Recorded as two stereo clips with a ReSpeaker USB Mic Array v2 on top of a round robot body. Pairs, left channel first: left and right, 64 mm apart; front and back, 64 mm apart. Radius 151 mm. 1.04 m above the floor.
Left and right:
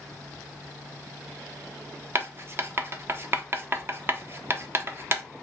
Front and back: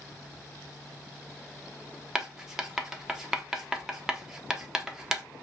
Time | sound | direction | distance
2.1 | writing | 105° right | 0.8 m